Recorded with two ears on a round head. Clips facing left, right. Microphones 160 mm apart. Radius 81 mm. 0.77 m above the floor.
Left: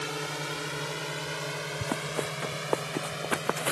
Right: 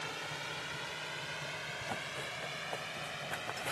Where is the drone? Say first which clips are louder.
Left 9 dB; 65° left (ahead or behind); by 3.7 s 60° left (ahead or behind).